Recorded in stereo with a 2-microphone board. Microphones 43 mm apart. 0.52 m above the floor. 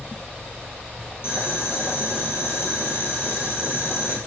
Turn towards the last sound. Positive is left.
turn(degrees=60)  # may be behind; listen again after turning